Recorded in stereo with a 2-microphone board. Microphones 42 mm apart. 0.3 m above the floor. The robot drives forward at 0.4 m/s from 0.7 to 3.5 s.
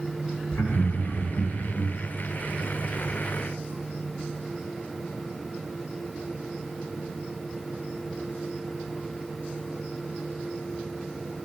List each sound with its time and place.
0.5 s laughter: 60° left (ahead or behind), 3 m; by 1.9 s 65° left (ahead or behind), 3 m